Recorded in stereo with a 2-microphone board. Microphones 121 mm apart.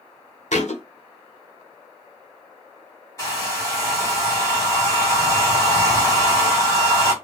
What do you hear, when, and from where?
0.5 s a thud: 75° left (ahead or behind), 0.9 m
3.2 s a hair dryer: 25° left (ahead or behind), 1.5 m